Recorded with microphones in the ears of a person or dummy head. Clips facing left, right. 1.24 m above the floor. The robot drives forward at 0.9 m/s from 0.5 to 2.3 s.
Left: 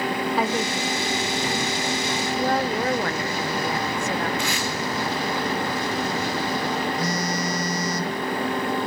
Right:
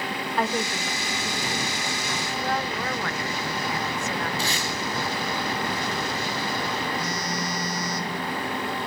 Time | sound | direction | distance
0.4 | a woman speaking | 5° right (ahead or behind) | 0.8 m
2.4 | a woman speaking | 35° left (ahead or behind) | 0.6 m
4.4 | tape being pulled | 35° right (ahead or behind) | 4.5 m
7.0 | a phone buzzing | 40° left (ahead or behind) | 2 m